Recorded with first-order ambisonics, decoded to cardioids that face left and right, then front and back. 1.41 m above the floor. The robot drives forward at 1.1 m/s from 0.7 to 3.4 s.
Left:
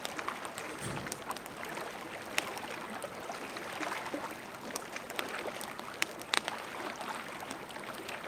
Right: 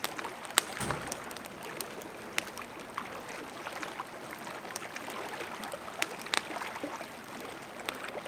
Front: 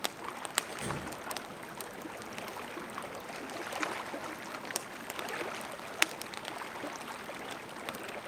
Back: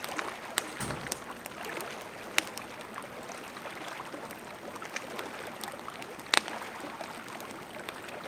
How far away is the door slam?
About 7 m.